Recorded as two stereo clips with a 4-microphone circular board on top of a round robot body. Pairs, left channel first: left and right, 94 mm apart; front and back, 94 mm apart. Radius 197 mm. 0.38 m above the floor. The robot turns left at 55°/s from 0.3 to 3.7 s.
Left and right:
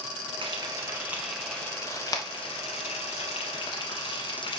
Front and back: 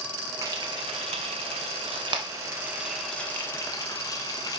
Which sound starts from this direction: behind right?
Frying, at 0.4 s.